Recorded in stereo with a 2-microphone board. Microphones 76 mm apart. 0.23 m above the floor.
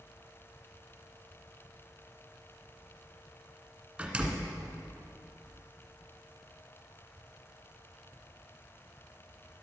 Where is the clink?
No clink in this recording.